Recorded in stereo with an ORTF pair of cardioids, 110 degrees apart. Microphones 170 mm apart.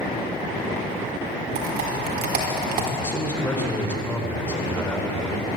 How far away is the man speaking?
About 4 m.